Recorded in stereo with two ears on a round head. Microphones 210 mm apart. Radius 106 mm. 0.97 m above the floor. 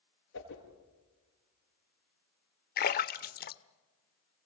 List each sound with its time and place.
0.3 s a whoosh: 55° left (ahead or behind), 6.5 m
2.8 s a splash: 40° left (ahead or behind), 1.0 m